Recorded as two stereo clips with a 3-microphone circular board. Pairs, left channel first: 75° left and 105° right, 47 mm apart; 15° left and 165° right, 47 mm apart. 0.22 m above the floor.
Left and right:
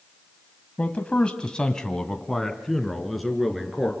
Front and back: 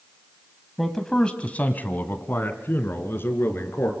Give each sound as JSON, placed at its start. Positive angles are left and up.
{"t": 0.8, "sound": "a man speaking", "azimuth_deg": 100, "distance_m": 1.1}